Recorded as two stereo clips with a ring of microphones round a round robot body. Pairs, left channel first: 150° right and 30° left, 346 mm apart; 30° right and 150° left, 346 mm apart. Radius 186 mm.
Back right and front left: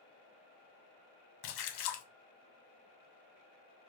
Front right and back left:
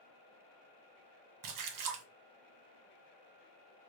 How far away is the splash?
About 1.2 m.